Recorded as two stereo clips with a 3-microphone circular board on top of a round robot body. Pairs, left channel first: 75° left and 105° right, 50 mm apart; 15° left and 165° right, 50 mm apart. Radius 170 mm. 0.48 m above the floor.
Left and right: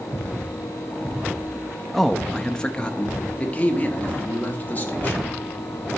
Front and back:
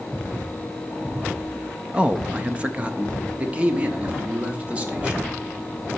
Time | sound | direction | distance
1.9 | a man speaking | 160° left | 0.9 m